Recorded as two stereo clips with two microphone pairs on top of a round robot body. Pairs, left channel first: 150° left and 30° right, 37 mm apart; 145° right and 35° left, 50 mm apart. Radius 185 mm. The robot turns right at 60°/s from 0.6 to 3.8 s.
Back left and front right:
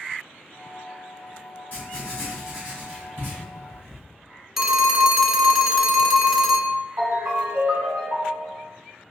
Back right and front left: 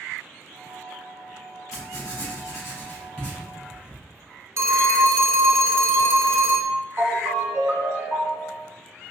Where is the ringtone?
15° right, 1.5 m.